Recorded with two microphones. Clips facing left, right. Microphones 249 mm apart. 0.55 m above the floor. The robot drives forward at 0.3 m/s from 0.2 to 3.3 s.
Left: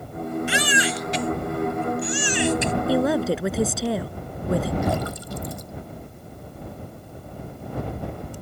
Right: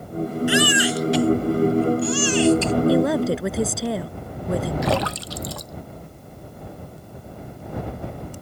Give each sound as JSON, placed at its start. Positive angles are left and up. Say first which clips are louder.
{"t": 0.5, "sound": "a baby crying", "louder": "right 6 dB", "side_deg": 25}
{"t": 2.9, "sound": "a woman speaking", "louder": "even", "side_deg": 0}
{"t": 4.8, "sound": "a splash", "louder": "right 3 dB", "side_deg": -85}